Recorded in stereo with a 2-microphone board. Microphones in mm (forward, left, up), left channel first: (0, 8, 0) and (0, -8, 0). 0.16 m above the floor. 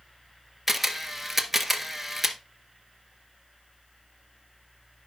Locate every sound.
0.7 s a camera shutter: 10° right (ahead or behind), 1.7 m